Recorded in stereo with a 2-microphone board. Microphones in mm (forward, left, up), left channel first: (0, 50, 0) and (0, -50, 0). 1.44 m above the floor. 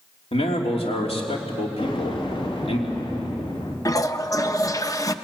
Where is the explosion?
55° left (ahead or behind), 3 m.